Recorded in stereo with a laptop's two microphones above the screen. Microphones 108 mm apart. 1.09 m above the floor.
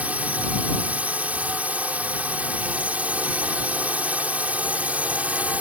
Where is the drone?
15° right (ahead or behind).